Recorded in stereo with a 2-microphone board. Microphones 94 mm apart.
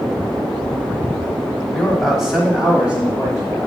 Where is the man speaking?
Centre (ahead or behind), 1.1 m; by 3.7 s 20° right (ahead or behind), 1.5 m.